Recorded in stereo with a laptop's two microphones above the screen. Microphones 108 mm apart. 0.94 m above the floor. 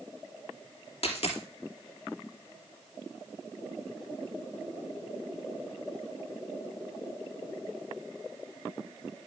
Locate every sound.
1.0 s a dropped coin: 70° left (ahead or behind), 2.5 m